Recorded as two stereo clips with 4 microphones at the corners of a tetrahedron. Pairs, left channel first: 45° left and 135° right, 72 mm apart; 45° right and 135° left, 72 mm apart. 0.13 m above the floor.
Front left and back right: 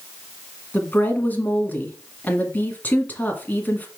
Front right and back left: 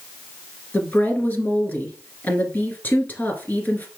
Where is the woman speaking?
Straight ahead, 1.4 m.